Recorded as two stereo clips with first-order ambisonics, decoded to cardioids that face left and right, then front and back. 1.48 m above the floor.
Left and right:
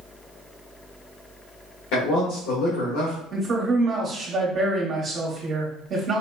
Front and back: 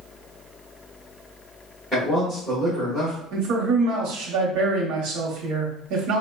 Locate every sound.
1.9 s a man speaking: 85° left, 1.2 m
3.3 s a man speaking: 155° right, 0.9 m